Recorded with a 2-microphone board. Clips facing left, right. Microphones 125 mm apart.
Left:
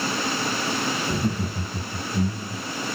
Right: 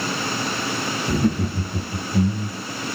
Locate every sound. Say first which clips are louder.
1.1 s laughter: right 5 dB; 55° right (ahead or behind), 0.9 m; by 2.6 s 70° right (ahead or behind), 2 m